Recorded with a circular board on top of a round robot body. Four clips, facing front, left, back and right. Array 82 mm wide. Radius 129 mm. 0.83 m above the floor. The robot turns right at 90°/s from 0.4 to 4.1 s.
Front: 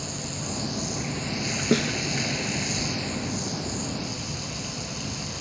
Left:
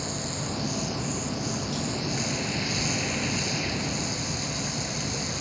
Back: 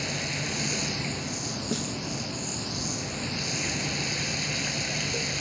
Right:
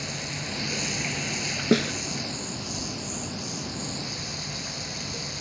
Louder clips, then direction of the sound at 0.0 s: Left 2 dB, back 2 dB; 155° right.